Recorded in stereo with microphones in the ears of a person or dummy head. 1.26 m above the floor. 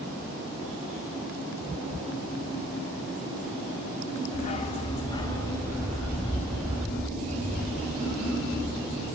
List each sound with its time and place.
4.3 s a dog barking: 40° left (ahead or behind), 1.3 m; by 9.1 s 5° left (ahead or behind), 6.5 m